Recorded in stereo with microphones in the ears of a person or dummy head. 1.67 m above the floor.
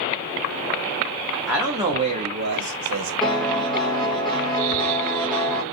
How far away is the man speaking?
About 0.8 m.